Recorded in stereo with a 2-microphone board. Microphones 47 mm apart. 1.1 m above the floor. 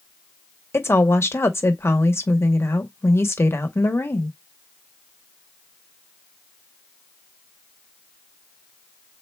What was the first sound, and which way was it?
A woman speaking, 70° left (ahead or behind).